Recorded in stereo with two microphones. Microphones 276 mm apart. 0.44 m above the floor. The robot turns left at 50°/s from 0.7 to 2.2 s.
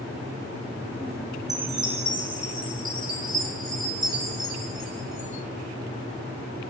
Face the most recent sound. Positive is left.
turn(degrees=-50)